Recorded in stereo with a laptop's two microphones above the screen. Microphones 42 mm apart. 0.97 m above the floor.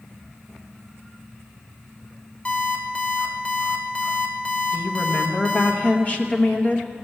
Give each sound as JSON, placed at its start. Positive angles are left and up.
{"t": 2.5, "sound": "an alarm clock", "side_deg": 30, "distance_m": 1.6}
{"t": 4.7, "sound": "a woman speaking", "side_deg": 30, "distance_m": 1.0}